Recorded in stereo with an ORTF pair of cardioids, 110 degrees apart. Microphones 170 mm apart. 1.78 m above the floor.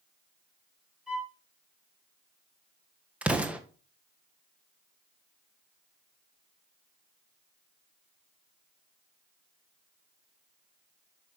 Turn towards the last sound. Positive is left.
turn(degrees=-10)